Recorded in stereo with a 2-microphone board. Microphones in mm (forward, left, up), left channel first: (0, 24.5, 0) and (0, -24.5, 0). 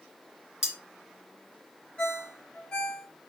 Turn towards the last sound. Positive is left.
turn(degrees=15)  # may be behind; listen again after turning